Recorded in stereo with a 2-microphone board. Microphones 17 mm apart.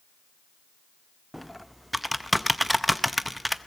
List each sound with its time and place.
1.3 s typing on a keyboard: 10° right (ahead or behind), 0.6 m